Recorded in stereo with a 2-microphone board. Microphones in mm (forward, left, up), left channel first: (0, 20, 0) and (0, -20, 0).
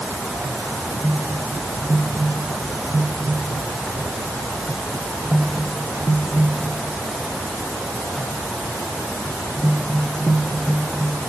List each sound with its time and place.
Only background noise.